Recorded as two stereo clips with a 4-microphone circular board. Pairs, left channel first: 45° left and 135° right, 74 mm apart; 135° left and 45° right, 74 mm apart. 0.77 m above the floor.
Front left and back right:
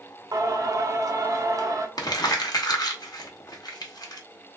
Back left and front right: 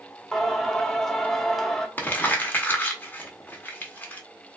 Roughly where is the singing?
Behind right.